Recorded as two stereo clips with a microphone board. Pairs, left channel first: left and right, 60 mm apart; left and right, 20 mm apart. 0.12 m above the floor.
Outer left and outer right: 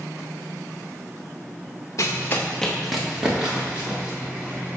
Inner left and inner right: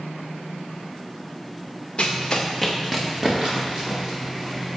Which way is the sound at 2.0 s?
55° left (ahead or behind).